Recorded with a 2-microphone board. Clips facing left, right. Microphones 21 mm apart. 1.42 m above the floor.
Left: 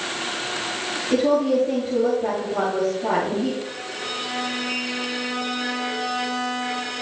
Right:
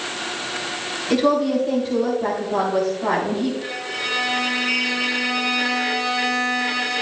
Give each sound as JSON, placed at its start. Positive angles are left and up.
{"t": 1.1, "sound": "a woman speaking", "side_deg": -85, "distance_m": 4.0}
{"t": 3.6, "sound": "a violin", "side_deg": -55, "distance_m": 1.7}